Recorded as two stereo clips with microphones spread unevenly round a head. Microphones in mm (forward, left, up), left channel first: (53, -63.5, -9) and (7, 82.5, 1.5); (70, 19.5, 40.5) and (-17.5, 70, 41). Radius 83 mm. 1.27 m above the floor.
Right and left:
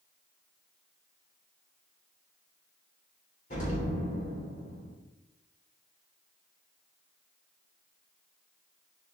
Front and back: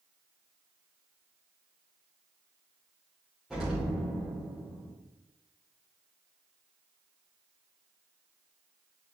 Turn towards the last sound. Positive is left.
turn(degrees=-120)